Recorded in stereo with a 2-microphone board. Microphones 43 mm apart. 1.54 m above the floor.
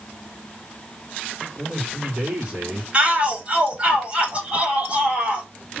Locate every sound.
1.6 s a man speaking: 35° right (ahead or behind), 4.5 m; by 2.8 s 40° right (ahead or behind), 4 m
2.9 s a shout: 25° right (ahead or behind), 5 m